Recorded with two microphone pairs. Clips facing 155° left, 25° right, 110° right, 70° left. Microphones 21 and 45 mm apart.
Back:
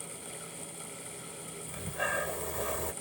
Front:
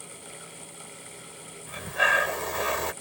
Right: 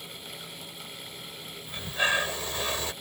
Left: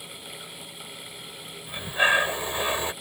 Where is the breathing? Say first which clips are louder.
Front 11 dB, left 5 dB; 5° left.